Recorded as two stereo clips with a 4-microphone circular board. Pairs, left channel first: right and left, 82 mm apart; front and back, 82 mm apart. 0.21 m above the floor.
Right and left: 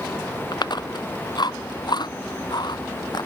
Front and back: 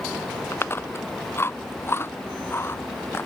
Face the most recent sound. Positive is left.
turn(degrees=-60)